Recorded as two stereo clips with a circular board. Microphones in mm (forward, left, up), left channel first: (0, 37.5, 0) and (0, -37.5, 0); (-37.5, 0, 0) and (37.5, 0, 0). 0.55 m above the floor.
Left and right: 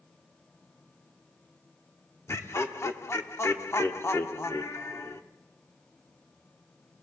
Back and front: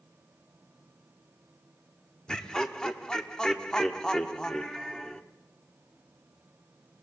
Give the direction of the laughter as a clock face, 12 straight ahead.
8 o'clock.